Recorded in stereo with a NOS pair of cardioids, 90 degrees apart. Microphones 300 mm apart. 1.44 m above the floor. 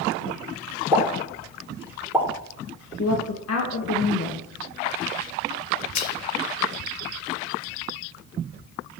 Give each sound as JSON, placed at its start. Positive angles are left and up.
{"t": 0.9, "sound": "a pop", "azimuth_deg": -5, "distance_m": 6.0}
{"t": 3.0, "sound": "a woman speaking", "azimuth_deg": 50, "distance_m": 1.8}
{"t": 6.0, "sound": "whispering", "azimuth_deg": 65, "distance_m": 1.8}